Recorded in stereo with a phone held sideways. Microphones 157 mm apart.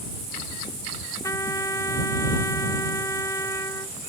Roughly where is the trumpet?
Left.